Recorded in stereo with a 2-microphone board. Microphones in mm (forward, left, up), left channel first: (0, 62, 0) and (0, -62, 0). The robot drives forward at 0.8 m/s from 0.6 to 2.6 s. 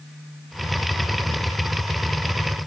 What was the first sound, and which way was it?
Only background noise.